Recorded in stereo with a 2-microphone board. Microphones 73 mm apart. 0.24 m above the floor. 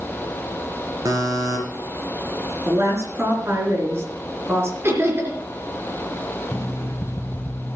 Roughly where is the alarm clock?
Left.